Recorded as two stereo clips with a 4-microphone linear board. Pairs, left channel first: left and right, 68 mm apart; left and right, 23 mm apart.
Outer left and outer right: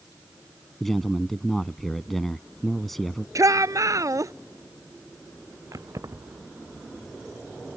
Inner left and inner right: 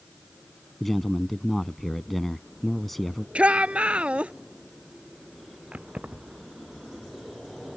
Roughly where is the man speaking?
Centre.